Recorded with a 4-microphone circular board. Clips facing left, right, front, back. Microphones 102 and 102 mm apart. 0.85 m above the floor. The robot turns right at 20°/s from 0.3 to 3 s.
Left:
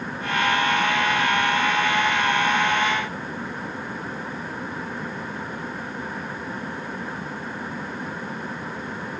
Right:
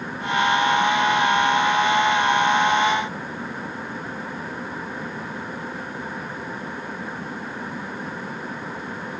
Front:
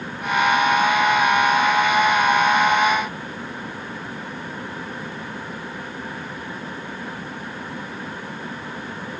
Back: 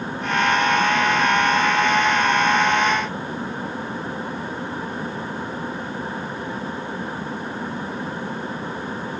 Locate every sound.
Only background noise.